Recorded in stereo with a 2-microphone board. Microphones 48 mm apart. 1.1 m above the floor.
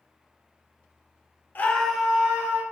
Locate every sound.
1.6 s a scream: 40° left (ahead or behind), 0.5 m; by 2.6 s 30° right (ahead or behind), 1.3 m